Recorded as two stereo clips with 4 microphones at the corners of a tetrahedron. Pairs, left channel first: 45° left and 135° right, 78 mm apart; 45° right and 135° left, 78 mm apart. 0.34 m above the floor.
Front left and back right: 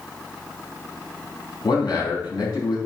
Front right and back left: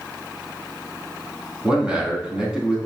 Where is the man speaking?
60° left, 3.5 m.